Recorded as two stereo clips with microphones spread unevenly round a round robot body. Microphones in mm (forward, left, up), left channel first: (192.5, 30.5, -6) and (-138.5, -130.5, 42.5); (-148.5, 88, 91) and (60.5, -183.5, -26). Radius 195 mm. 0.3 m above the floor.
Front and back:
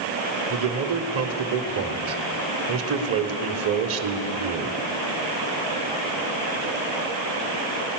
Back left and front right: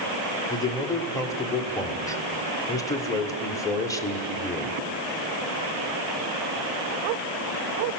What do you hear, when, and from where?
0.5 s a man speaking: 130° right, 1.7 m